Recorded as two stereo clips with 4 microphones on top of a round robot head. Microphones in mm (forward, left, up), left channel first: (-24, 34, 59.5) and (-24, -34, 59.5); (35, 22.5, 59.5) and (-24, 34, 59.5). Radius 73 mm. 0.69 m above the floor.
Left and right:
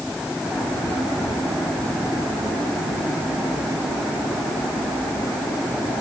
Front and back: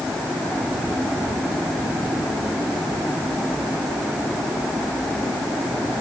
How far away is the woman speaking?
I don't hear a woman speaking.